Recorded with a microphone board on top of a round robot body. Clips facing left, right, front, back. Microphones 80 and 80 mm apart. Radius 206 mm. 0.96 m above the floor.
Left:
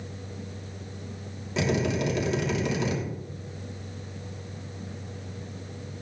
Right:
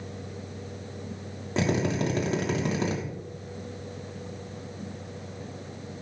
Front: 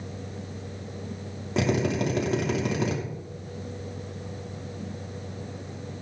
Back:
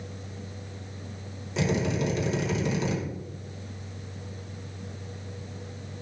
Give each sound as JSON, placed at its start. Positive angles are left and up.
{"t": 1.6, "sound": "a drill", "azimuth_deg": -40, "distance_m": 3.0}